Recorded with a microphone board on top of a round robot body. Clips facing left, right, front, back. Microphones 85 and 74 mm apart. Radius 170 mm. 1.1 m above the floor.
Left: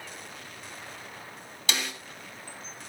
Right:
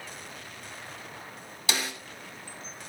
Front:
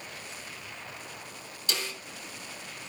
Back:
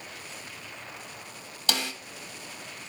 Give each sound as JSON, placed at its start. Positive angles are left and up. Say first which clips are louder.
{"t": 1.7, "sound": "a snare drum", "louder": "right 1 dB, back 4 dB", "azimuth_deg": -175, "distance_m": 1.9}